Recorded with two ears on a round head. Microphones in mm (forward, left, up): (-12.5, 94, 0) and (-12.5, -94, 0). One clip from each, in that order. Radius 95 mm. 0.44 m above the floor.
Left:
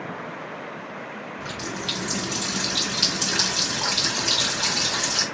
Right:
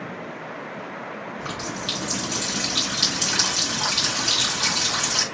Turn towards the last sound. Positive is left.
turn(degrees=-5)  # may be behind; listen again after turning